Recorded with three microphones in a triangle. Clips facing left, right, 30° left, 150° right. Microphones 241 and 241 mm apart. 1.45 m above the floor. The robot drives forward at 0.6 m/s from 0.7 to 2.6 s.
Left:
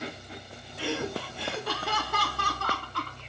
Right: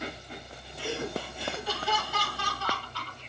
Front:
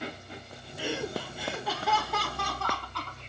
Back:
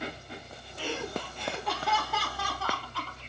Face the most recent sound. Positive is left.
turn(degrees=125)